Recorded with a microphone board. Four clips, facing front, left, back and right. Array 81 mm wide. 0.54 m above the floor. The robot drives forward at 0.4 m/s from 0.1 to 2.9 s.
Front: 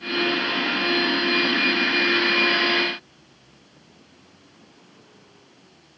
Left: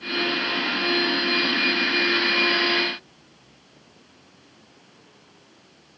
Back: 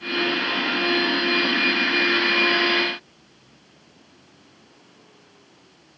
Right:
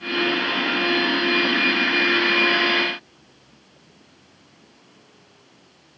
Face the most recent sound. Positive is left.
No sound to turn to.